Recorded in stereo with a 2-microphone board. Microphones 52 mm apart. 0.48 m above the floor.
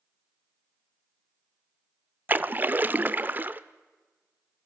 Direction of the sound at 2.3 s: 35° right (ahead or behind).